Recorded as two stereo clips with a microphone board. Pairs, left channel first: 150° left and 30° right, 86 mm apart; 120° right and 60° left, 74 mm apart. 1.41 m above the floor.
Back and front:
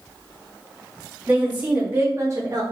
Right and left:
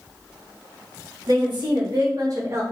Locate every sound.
1.3 s a woman speaking: 45° left, 1.2 m; by 2.6 s 10° left, 0.6 m